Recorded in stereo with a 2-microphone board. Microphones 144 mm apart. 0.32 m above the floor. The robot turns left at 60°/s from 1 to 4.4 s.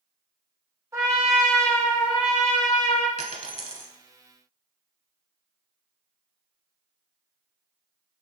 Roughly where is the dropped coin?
Right.